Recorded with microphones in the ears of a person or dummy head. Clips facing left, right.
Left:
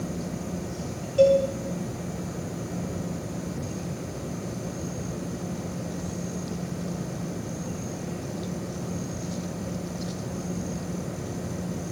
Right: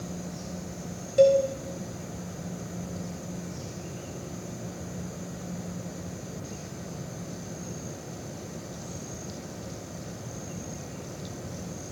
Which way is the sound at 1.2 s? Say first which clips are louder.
Left 1 dB; 25° right (ahead or behind).